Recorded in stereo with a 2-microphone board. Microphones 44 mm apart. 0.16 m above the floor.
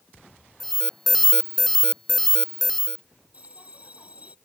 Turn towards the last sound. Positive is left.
turn(degrees=-30)  # may be behind; listen again after turning